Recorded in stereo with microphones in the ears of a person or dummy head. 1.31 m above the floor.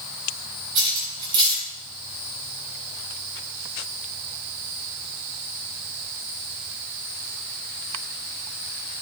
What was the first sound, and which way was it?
Cutlery clinking, 25° right (ahead or behind).